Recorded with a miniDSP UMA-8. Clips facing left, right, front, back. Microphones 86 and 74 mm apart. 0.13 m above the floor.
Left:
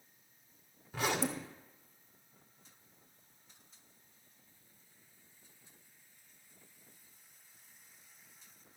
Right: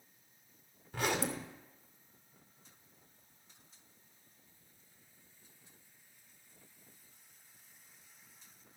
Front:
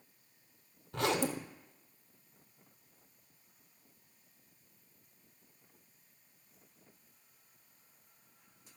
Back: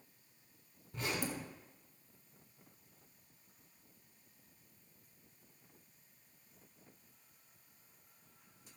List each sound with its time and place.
0.9 s a zipper: straight ahead, 0.8 m